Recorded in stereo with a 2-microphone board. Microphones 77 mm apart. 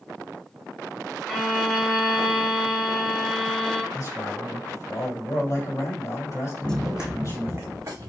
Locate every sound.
1.3 s a violin: centre (ahead or behind), 2.5 m
3.9 s a man speaking: 45° left (ahead or behind), 2 m
6.6 s running footsteps: 15° left (ahead or behind), 0.8 m; by 8.1 s 45° right (ahead or behind), 1.7 m